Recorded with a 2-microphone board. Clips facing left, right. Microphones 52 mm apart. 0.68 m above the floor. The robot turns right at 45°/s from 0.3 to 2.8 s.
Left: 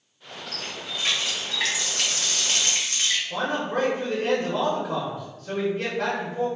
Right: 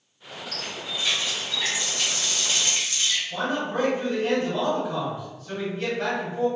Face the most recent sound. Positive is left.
turn(degrees=65)  # may be behind; listen again after turning